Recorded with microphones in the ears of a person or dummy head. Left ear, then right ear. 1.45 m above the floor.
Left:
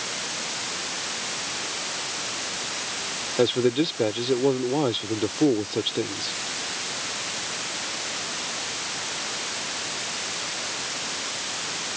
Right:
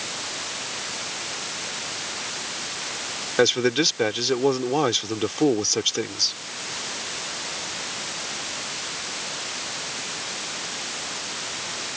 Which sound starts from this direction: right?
A man speaking, at 3.4 s.